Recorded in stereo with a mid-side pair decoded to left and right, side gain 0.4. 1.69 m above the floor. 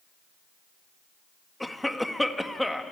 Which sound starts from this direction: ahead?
A cough, at 1.6 s.